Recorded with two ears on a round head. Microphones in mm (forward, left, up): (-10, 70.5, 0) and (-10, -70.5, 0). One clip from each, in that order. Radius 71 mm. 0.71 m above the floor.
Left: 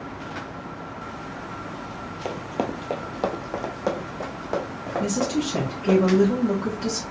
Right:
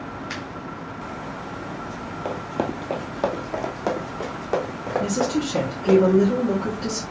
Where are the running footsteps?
30° left (ahead or behind), 0.8 m; by 6.0 s 10° right (ahead or behind), 3 m.